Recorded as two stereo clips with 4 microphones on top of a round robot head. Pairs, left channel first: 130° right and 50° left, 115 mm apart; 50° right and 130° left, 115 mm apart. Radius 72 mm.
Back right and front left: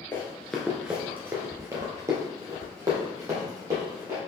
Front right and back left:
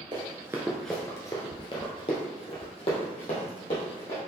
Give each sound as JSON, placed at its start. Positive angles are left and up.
{"t": 0.1, "sound": "running footsteps", "azimuth_deg": 165, "distance_m": 0.8}